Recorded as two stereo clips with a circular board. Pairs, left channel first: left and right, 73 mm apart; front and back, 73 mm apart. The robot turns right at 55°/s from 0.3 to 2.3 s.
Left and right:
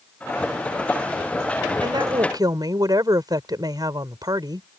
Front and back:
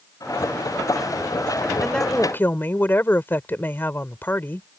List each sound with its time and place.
1.8 s a woman speaking: 90° right; by 4.7 s 60° right